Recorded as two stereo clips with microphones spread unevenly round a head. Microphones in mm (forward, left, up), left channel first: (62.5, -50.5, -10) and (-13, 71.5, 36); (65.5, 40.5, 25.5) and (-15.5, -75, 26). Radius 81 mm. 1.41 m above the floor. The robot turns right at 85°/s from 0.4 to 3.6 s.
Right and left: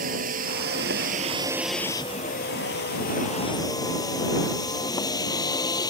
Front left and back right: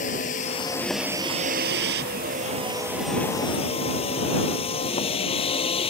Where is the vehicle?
100° left; by 5.9 s 5° left.